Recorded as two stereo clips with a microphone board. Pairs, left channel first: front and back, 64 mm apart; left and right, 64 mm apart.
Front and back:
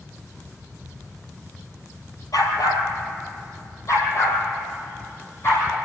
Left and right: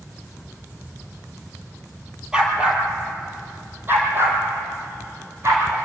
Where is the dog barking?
15° right, 2.5 m; by 5.8 s 45° right, 5 m.